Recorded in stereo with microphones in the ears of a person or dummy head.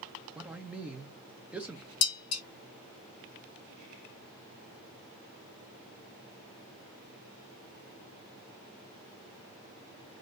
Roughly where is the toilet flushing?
I don't hear a toilet flushing.